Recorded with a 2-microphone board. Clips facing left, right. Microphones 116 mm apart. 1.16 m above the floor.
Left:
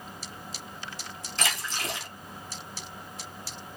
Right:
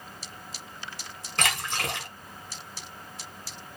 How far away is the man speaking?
I don't hear a man speaking.